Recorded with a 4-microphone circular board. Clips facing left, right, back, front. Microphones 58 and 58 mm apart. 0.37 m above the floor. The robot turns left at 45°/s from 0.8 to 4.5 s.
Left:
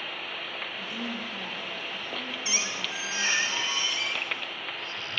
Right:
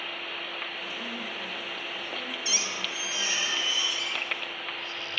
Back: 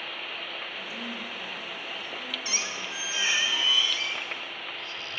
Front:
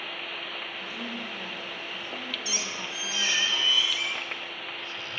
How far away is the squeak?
About 1.5 m.